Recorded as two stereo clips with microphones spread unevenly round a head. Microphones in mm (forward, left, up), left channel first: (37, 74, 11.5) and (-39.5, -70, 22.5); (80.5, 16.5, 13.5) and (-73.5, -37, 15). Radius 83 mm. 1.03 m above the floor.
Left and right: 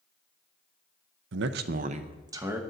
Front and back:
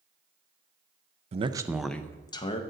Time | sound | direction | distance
1.3 | a man speaking | 110° right | 0.5 m